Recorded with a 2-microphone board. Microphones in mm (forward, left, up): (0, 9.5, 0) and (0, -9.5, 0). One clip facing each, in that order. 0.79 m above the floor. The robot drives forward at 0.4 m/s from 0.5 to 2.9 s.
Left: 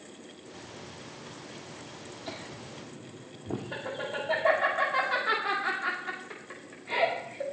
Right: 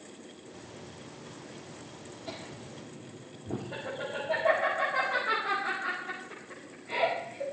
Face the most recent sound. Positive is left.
turn(degrees=60)  # may be behind; listen again after turning